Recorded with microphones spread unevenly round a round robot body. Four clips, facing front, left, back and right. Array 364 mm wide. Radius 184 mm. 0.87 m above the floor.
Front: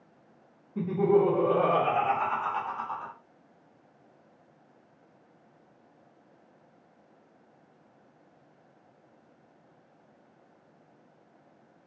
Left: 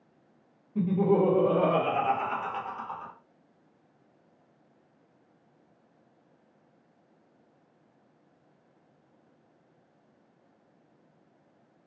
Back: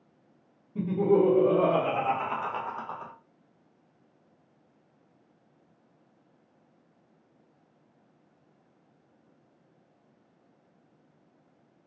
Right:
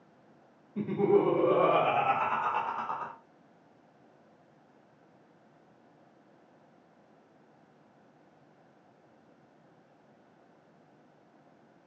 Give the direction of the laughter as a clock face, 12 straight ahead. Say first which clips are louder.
Left 1 dB, even; 7 o'clock.